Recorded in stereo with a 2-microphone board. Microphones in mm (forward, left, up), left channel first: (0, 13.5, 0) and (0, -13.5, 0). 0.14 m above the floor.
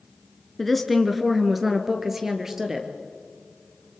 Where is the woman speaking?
5° left (ahead or behind), 1.5 m; by 2.9 s 15° right (ahead or behind), 2.5 m.